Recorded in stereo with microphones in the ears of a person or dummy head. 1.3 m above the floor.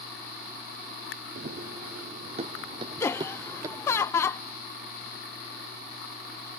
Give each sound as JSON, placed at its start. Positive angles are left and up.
{"t": 1.4, "sound": "running footsteps", "side_deg": -50}
{"t": 3.0, "sound": "laughter", "side_deg": 20}